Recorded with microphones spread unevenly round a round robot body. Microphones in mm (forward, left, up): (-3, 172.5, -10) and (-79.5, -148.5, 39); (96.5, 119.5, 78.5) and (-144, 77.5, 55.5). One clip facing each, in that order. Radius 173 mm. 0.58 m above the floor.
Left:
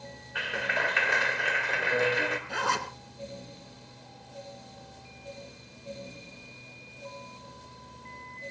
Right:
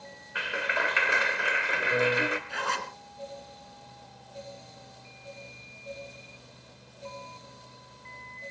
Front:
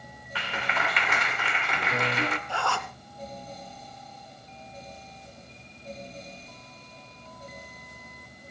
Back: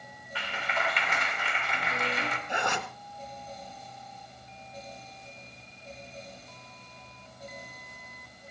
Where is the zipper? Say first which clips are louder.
Left 3 dB, even; 115° left, 2 m.